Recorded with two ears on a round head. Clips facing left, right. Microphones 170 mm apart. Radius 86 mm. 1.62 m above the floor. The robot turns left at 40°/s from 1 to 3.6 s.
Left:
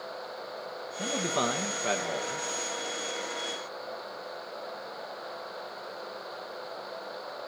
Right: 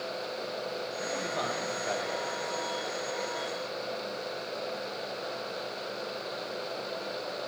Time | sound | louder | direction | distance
1.0 | a man speaking | left 6 dB | 125° left | 1.4 m